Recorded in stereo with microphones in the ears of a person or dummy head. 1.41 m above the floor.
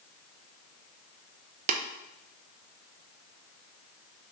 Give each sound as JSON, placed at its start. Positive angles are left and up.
{"t": 1.7, "sound": "tapping", "side_deg": -45, "distance_m": 0.6}